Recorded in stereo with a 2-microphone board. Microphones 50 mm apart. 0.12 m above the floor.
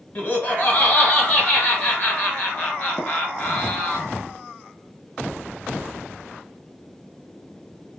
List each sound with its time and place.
0.1 s laughter: 35° left (ahead or behind), 1.6 m
3.0 s tapping: centre (ahead or behind), 1.1 m